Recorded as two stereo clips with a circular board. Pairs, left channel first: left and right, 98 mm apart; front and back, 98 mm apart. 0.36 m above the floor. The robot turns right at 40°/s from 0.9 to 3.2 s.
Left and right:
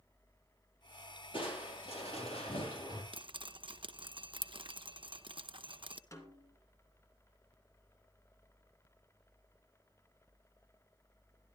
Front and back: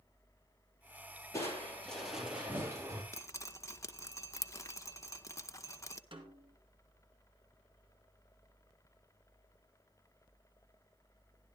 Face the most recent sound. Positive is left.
turn(degrees=150)